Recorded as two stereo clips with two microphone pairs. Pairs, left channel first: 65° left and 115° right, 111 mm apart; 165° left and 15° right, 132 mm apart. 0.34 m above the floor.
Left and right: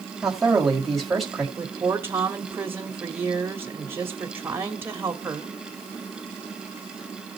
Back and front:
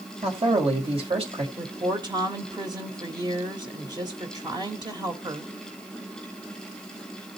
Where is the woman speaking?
55° right, 1.1 m.